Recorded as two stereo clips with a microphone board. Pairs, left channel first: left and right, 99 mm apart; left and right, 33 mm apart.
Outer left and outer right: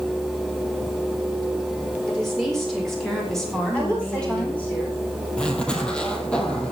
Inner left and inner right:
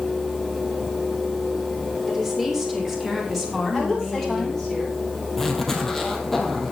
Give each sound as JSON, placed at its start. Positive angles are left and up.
{"t": 2.1, "sound": "a woman speaking", "side_deg": 0, "distance_m": 6.5}
{"t": 3.7, "sound": "a woman speaking", "side_deg": 15, "distance_m": 9.0}
{"t": 5.4, "sound": "a zipper", "side_deg": 10, "distance_m": 2.5}